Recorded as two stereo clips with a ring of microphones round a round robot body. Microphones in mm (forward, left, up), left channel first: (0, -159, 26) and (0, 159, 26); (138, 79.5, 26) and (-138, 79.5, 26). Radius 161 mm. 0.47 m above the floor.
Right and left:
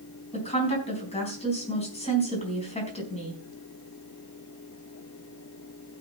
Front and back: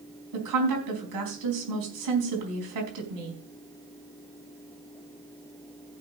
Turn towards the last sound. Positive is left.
turn(degrees=-160)